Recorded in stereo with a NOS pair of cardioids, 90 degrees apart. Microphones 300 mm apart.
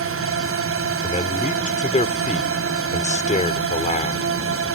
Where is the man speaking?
25° left.